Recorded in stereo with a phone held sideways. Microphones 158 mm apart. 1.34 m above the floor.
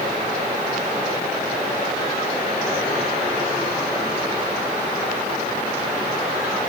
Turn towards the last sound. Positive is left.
No sound to turn to.